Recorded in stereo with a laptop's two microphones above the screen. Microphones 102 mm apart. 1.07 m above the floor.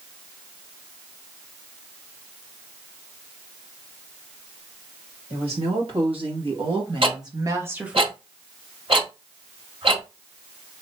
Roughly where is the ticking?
Right.